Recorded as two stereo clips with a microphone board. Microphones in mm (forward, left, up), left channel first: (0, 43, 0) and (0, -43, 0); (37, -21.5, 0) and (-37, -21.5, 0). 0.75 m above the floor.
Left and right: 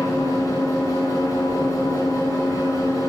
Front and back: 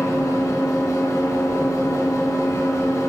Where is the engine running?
45° left, 4 m.